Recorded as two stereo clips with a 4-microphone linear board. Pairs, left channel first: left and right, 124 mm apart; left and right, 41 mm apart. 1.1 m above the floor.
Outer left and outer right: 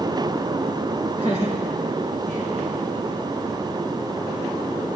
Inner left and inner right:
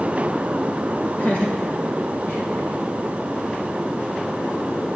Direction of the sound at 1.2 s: 50° left (ahead or behind).